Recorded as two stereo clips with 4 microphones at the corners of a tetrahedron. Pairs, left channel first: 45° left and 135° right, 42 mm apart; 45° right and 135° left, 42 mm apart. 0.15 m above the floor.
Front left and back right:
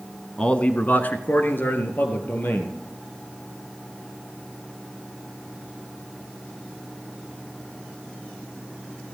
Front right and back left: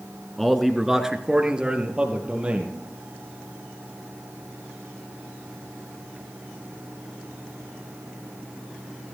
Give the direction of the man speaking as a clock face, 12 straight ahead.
11 o'clock.